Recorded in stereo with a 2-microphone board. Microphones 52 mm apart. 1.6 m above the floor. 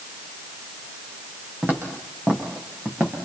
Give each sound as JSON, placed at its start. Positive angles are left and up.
{"t": 1.6, "sound": "footsteps", "side_deg": -35, "distance_m": 5.0}